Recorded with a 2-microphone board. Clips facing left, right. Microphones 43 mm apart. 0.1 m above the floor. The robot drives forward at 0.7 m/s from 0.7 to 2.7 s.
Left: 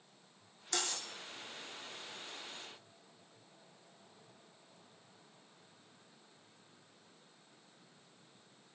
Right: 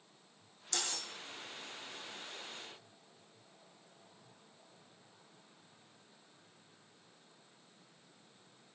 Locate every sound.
0.7 s cutlery clinking: 25° left (ahead or behind), 3 m